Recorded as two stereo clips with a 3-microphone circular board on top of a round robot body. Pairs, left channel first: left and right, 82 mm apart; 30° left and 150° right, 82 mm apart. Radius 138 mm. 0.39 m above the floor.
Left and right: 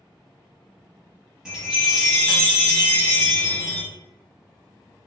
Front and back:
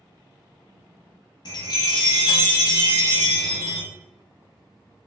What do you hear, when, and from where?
1.4 s a chime: 10° right, 0.5 m